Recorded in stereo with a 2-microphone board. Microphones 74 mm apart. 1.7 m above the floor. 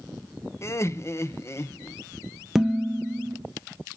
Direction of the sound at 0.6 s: 35° left (ahead or behind).